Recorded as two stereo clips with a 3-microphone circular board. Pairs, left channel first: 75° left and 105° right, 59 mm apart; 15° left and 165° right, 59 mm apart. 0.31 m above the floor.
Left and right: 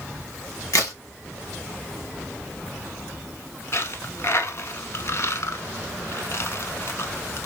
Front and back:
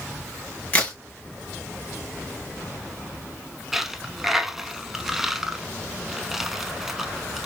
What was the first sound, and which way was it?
A crack, 75° left.